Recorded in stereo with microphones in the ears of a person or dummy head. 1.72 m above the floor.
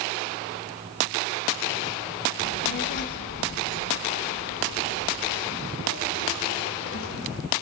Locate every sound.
2.4 s a child speaking: 35° left (ahead or behind), 0.9 m; by 7.4 s 80° left, 4.5 m